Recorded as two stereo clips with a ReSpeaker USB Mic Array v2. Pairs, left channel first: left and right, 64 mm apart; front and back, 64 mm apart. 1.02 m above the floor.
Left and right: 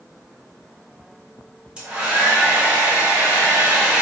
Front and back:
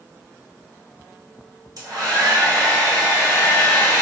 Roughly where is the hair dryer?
Behind.